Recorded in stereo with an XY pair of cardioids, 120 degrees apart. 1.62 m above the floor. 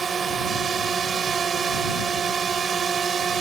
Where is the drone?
35° right.